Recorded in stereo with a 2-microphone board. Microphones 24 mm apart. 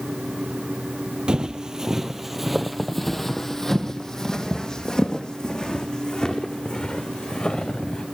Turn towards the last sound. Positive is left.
turn(degrees=45)  # may be behind; listen again after turning